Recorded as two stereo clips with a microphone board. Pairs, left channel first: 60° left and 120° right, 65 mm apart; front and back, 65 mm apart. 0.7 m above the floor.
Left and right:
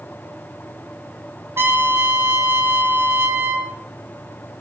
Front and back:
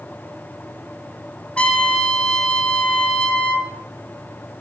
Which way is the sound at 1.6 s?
75° right.